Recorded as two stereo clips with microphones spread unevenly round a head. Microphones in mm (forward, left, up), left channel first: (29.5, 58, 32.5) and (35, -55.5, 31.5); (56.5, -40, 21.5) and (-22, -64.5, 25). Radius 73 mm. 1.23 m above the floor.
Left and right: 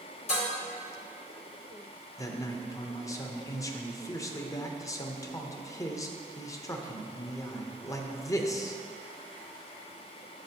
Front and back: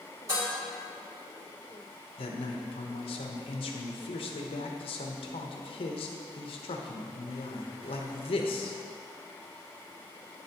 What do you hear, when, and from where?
0.3 s dishes clattering: 130° left, 2.5 m
2.2 s a man speaking: 30° left, 0.9 m